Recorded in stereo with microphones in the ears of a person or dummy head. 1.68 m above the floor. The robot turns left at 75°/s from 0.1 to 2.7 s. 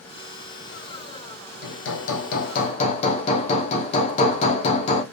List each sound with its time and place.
1.6 s hammering: 120° left, 0.8 m; by 5.0 s 40° left, 0.8 m